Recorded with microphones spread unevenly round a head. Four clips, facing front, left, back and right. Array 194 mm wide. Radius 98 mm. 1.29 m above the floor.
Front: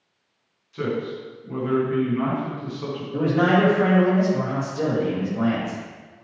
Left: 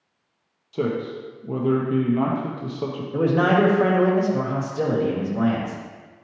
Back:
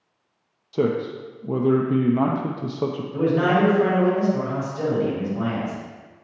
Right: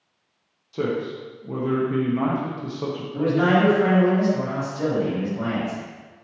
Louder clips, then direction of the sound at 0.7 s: Even, back 4 dB; 175° left.